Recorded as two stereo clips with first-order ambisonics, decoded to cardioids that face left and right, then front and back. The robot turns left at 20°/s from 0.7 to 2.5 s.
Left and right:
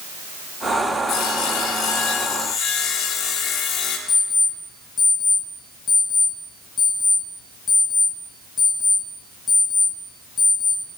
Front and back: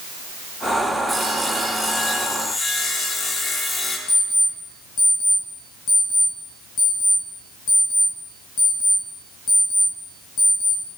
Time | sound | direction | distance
1.1 | sawing | 90° left | 0.7 m
4.1 | an alarm clock | 20° left | 2 m